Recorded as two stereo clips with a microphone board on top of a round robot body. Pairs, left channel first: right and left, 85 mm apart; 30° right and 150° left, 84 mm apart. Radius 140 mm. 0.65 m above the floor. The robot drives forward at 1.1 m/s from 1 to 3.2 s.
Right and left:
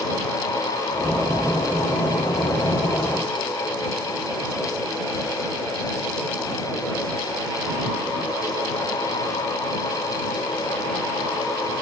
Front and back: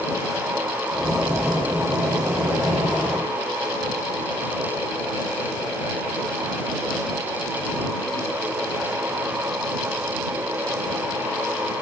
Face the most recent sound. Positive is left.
No sound to turn to.